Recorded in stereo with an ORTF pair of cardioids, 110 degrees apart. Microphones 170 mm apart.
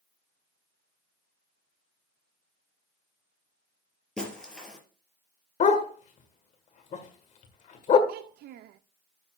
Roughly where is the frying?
I don't hear frying.